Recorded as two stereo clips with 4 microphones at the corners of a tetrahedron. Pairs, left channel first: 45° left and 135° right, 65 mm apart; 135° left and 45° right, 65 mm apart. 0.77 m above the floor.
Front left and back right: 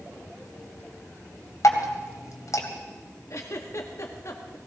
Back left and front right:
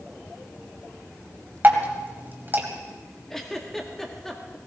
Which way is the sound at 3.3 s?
55° left.